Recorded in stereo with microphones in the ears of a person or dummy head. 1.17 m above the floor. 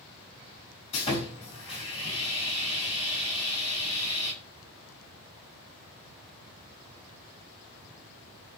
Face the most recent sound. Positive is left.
turn(degrees=35)  # may be behind; listen again after turning